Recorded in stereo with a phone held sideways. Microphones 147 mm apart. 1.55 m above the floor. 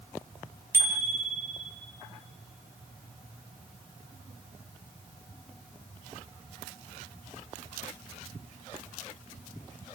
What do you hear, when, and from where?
0.7 s a bicycle bell: 15° right (ahead or behind), 2.5 m